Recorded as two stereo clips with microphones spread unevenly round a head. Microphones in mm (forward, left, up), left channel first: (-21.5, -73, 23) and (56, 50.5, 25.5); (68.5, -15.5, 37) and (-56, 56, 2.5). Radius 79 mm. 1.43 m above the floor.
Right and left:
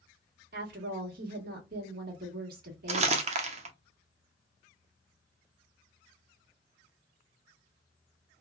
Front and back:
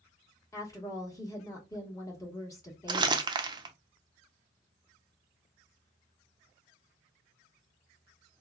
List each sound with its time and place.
0.5 s a woman speaking: 35° left, 1.4 m
2.9 s crumpling: 100° left, 0.6 m